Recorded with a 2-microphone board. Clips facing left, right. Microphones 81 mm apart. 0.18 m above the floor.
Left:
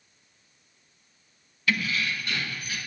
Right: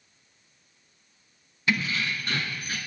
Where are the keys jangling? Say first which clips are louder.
Even; 25° right (ahead or behind), 0.8 m; by 2.8 s 40° right (ahead or behind), 1.3 m.